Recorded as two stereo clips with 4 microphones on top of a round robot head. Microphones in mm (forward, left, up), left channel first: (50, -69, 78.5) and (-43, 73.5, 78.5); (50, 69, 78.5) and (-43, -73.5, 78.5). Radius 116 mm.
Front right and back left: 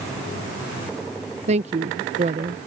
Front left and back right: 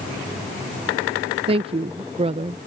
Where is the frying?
No frying in this recording.